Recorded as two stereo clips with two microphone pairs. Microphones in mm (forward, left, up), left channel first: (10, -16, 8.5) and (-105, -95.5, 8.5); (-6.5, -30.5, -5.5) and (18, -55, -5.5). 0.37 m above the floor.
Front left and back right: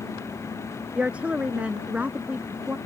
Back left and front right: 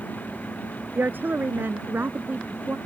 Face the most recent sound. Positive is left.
turn(degrees=-70)